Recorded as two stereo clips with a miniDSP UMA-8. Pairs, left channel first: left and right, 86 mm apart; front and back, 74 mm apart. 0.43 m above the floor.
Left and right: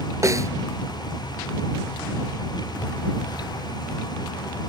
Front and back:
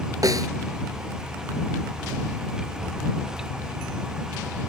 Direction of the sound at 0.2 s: 140° right.